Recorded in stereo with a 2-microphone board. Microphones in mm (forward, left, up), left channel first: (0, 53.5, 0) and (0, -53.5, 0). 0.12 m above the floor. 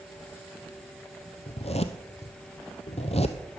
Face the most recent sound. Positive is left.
turn(degrees=75)  # may be behind; listen again after turning